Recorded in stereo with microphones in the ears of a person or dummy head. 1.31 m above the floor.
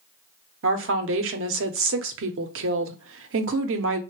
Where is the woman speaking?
60° right (ahead or behind), 0.6 m.